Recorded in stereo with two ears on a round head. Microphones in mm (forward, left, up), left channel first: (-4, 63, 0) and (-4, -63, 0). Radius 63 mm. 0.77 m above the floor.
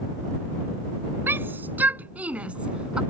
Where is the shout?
15° right (ahead or behind); by 3.0 s 5° right (ahead or behind).